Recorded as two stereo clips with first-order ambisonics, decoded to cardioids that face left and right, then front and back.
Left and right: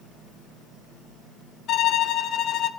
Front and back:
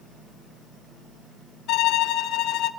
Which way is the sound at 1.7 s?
40° left.